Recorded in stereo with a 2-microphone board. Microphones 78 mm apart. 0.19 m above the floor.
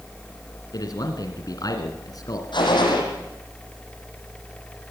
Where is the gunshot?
75° left (ahead or behind), 6.5 m.